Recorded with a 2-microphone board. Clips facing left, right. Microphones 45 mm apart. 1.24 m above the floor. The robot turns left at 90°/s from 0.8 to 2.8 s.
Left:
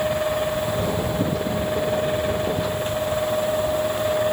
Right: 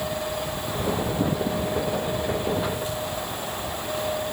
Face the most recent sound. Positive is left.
No sound to turn to.